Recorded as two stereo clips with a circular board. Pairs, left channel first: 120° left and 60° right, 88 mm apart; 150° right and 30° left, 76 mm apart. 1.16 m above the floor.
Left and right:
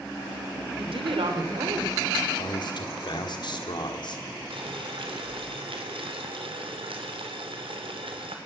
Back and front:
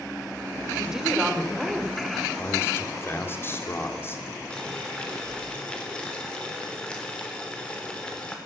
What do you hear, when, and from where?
0.8 s a woman speaking: 50° right, 3 m
2.4 s a man speaking: 150° left, 3 m
4.5 s boiling: 70° right, 3.5 m